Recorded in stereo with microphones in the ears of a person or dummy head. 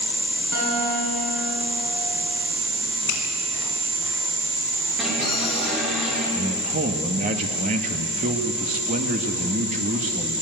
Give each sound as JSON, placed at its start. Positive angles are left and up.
{"t": 0.5, "sound": "a guitar", "side_deg": -75, "distance_m": 7.5}
{"t": 3.1, "sound": "a finger snap", "side_deg": 65, "distance_m": 4.5}
{"t": 5.0, "sound": "an alarm", "side_deg": -5, "distance_m": 4.0}
{"t": 6.3, "sound": "a man speaking", "side_deg": -50, "distance_m": 1.6}